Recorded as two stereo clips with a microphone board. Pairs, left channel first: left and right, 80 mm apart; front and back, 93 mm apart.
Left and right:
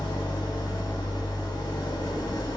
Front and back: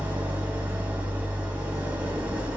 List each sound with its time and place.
0.0 s an engine running: 110° left, 0.7 m